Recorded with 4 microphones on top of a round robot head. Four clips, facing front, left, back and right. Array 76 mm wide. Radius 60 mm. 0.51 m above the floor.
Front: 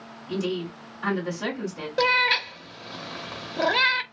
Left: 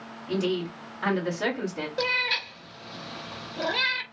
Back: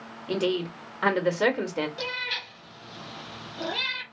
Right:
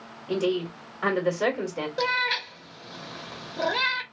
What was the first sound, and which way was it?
A woman speaking, 170° right.